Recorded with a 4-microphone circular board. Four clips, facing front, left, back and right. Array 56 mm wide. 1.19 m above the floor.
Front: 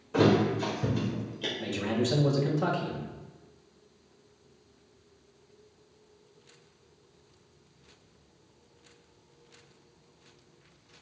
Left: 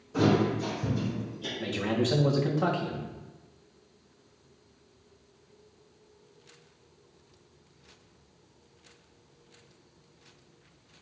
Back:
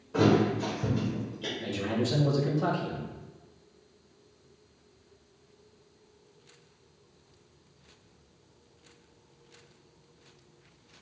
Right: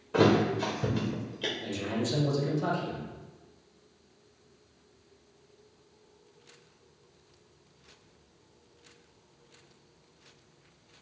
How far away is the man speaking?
About 1.5 m.